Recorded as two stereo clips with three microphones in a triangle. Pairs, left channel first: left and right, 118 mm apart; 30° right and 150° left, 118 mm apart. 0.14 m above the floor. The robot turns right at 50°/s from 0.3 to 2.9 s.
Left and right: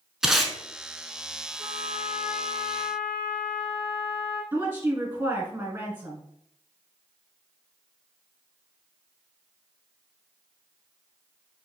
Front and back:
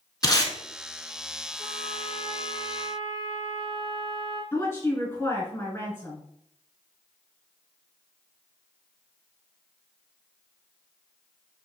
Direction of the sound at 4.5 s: 55° right.